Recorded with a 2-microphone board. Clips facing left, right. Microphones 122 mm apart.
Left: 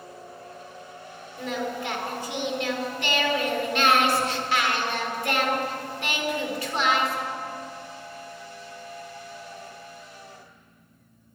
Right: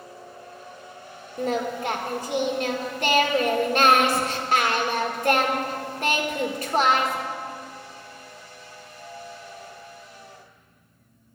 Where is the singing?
40° right (ahead or behind), 1.6 m.